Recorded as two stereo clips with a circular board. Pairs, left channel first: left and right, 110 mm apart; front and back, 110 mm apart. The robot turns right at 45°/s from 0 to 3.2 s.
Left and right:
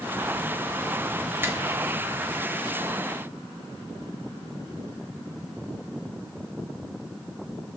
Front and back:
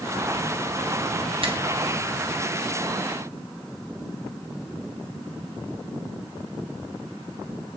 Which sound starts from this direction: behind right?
A finger snap, at 1.4 s.